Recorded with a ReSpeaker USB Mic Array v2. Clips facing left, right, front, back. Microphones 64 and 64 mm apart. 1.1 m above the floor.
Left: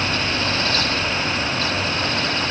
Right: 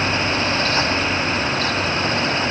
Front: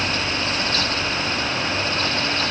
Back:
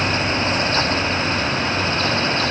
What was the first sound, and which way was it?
Only background noise.